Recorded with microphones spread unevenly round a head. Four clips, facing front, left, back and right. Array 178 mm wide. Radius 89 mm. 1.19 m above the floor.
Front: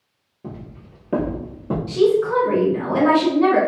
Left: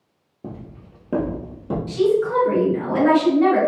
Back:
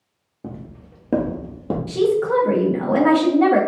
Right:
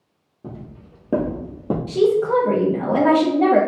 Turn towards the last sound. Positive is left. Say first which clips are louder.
# right 1 dB, front 2 dB
turn(degrees=-130)